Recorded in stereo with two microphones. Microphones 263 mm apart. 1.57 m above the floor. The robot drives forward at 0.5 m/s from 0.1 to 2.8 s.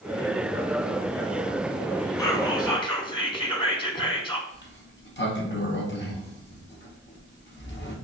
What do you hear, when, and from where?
2.2 s whispering: 15° left (ahead or behind), 1.2 m; by 4.4 s 20° left (ahead or behind), 0.9 m
4.5 s a sliding door: 45° left (ahead or behind), 0.8 m